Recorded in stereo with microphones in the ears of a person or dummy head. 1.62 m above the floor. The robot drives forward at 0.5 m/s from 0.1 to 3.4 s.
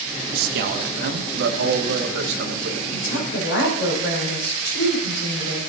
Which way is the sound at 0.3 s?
55° right (ahead or behind).